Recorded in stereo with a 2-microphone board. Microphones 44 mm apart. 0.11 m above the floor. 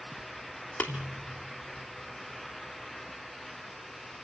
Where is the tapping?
35° left (ahead or behind), 2.5 m.